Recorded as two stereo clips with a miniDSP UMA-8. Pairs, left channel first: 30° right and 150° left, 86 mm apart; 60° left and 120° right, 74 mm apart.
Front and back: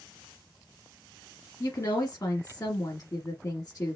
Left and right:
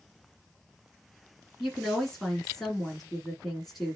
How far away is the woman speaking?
About 1.7 m.